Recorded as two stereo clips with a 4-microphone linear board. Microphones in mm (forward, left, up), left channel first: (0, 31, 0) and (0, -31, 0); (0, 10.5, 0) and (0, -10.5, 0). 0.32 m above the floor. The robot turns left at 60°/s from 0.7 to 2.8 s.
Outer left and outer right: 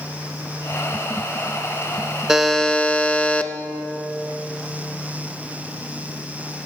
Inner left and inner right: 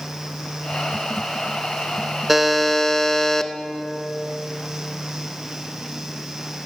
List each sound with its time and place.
2.3 s a buzzer: 170° right, 0.5 m; by 3.5 s 155° left, 0.5 m